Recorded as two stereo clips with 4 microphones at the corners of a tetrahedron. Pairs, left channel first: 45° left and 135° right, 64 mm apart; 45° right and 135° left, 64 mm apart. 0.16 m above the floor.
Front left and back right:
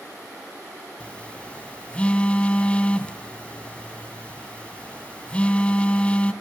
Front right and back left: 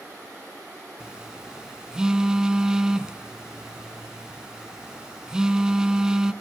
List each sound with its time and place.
1.0 s a phone buzzing: 75° left, 1.6 m